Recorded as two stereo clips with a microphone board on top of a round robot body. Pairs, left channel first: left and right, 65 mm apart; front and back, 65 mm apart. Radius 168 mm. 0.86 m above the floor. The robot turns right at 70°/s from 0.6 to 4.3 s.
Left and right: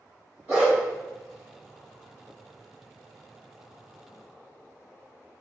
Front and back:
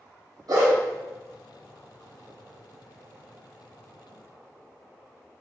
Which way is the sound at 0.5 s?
155° right.